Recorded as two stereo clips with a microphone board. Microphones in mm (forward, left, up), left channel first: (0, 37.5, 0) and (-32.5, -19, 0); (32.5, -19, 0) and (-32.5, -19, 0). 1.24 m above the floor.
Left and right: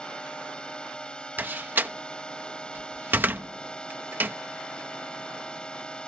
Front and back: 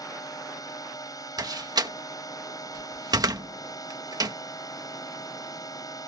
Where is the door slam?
Straight behind.